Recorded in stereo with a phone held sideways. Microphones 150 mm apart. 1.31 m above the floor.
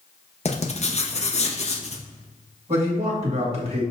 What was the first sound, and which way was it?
Writing, 45° left (ahead or behind).